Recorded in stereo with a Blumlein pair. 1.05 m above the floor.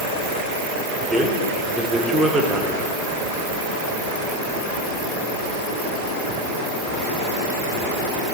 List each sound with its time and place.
1.1 s a man speaking: 10° right, 1.2 m